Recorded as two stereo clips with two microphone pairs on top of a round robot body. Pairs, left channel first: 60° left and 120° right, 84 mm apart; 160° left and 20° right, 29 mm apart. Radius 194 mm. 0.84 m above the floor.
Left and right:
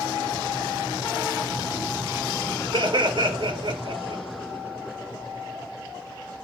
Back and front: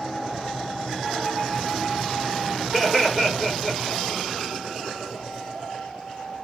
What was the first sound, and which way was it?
Laughter, 120° right.